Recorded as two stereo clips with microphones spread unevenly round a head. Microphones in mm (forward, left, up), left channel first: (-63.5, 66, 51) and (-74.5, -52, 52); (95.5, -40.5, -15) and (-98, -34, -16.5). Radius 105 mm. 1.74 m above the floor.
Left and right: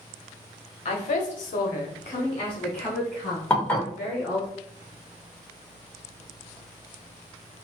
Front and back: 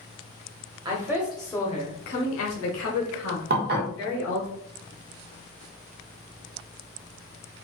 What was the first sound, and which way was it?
A woman speaking, 105° left.